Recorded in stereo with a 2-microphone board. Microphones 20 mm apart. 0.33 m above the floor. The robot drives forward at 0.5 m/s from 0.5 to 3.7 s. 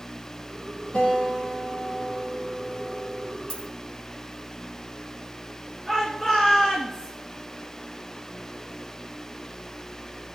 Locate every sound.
0.9 s a guitar: 70° left (ahead or behind), 6 m; by 3.3 s 60° left (ahead or behind), 6.5 m
3.5 s a dropped coin: 80° left, 2.5 m; by 3.7 s 75° left (ahead or behind), 2.5 m
5.9 s a shout: 25° left (ahead or behind), 3.5 m